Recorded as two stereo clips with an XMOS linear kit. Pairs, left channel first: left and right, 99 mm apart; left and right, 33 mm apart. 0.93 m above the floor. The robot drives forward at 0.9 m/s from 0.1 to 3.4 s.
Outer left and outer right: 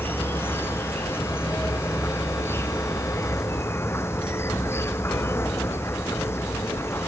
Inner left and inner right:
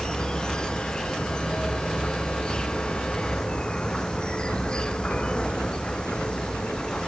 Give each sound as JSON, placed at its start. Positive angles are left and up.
{"t": 0.0, "sound": "an insect", "side_deg": 20}